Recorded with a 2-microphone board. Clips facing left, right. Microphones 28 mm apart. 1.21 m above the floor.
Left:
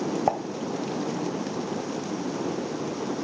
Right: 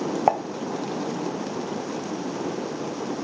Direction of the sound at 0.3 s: 35° right (ahead or behind).